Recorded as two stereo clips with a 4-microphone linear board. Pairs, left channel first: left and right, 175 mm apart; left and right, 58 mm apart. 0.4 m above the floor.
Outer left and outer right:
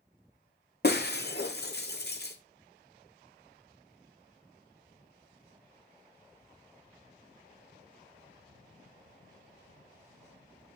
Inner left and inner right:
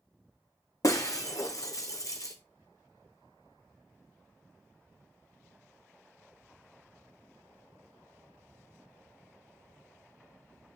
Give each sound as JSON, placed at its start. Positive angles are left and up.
{"t": 0.8, "sound": "breaking glass", "side_deg": 70, "distance_m": 1.3}